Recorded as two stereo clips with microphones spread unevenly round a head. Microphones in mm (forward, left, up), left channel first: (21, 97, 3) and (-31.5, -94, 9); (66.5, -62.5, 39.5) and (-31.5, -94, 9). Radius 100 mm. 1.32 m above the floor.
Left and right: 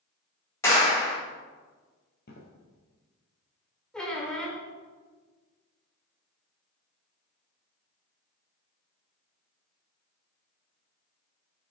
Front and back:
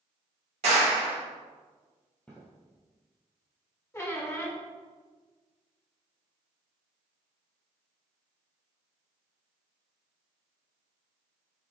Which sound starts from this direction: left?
Footsteps, at 2.3 s.